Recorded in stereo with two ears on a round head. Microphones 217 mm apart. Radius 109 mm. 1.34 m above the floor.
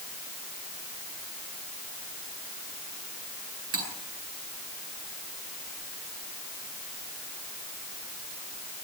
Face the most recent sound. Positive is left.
turn(degrees=-65)  # may be behind; listen again after turning